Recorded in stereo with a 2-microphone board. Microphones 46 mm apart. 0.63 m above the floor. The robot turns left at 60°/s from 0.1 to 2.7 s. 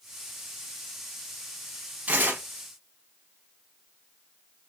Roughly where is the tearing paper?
Right.